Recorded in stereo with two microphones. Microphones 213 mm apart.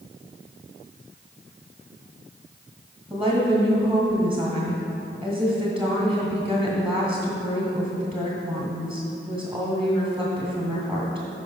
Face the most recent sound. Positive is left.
turn(degrees=-5)  # may be behind; listen again after turning